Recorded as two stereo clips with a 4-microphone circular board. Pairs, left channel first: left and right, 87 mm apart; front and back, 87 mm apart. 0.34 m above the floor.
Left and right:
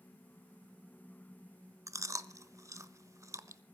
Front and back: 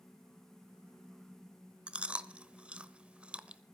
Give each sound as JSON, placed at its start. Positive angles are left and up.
{"t": 1.9, "sound": "chewing", "azimuth_deg": -110, "distance_m": 0.8}